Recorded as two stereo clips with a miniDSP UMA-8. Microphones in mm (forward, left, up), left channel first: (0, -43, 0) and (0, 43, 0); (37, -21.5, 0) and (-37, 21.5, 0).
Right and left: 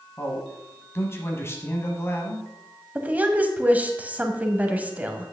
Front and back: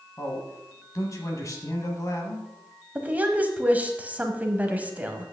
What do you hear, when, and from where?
0.2 s a man speaking: 50° right, 1.2 m
3.0 s a woman speaking: 120° left, 1.0 m